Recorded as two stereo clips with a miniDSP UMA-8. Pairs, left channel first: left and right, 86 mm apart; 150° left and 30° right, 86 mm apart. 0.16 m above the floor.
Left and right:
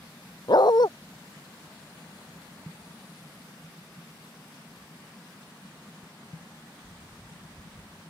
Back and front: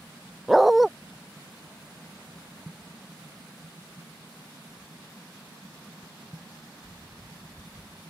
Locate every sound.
0.5 s a dog barking: 60° left